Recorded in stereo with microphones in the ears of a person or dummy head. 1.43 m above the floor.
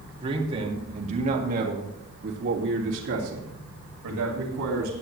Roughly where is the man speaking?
Right.